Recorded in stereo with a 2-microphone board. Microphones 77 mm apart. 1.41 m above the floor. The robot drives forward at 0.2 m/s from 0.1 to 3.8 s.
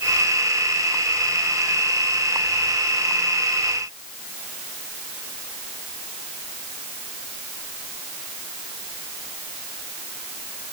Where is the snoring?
No snoring in this recording.